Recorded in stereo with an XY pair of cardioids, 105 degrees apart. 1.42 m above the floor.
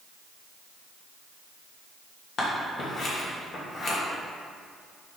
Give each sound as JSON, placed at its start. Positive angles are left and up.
{"t": 2.4, "sound": "scissors", "azimuth_deg": 55, "distance_m": 2.0}